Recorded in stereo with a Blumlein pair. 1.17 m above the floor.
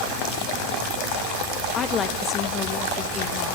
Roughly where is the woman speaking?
Ahead.